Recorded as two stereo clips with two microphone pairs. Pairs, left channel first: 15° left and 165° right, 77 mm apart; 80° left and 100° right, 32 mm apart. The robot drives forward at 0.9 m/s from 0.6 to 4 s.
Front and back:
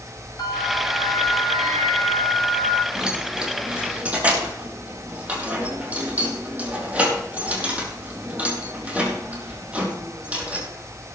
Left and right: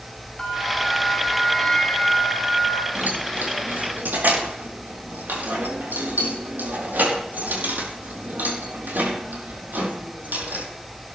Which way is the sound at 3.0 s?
85° right.